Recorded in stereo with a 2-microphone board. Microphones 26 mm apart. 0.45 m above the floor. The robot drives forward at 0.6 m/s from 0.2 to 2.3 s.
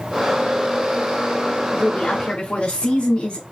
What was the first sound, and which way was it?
A woman speaking, 55° left (ahead or behind).